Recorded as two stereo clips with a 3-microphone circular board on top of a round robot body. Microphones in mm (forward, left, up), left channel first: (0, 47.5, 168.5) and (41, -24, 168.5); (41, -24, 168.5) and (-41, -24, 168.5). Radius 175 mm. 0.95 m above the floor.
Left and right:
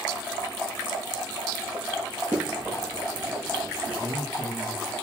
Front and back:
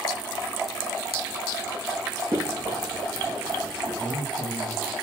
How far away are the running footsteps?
About 1.7 m.